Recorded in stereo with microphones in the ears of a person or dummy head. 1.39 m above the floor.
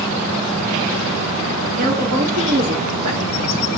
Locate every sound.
1.8 s a woman speaking: 50° right (ahead or behind), 4 m